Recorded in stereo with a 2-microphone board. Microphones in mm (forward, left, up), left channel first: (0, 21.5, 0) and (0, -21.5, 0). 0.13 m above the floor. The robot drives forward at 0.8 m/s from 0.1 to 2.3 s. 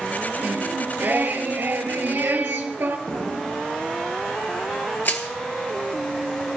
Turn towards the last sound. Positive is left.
turn(degrees=50)  # may be behind; listen again after turning